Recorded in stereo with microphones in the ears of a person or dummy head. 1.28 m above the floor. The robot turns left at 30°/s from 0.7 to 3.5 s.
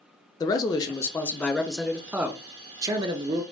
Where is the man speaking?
35° left, 0.5 m; by 3.4 s 50° right, 0.5 m.